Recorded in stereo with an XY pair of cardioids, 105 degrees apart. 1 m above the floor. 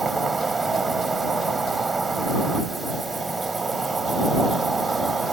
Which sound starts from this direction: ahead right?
An insect, at 0.0 s.